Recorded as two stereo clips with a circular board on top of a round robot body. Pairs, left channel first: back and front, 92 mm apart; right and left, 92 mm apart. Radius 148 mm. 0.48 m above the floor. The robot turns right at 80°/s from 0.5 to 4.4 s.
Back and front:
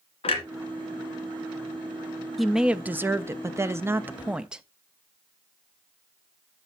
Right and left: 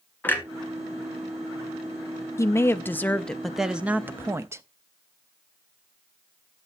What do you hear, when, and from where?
0.2 s a clunk: 160° right, 1.7 m
2.4 s a woman speaking: 90° right, 0.7 m; by 4.6 s 70° left, 0.7 m